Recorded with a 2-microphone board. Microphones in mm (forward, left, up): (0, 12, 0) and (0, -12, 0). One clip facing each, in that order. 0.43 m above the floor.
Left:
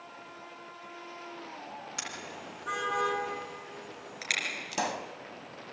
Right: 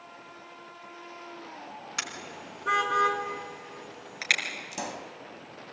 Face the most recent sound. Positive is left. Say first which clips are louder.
# left 4 dB
turn(degrees=20)  # may be behind; listen again after turning